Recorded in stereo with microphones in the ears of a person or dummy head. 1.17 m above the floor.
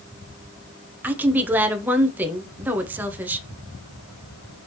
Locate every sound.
1.0 s a woman speaking: 10° right (ahead or behind), 0.9 m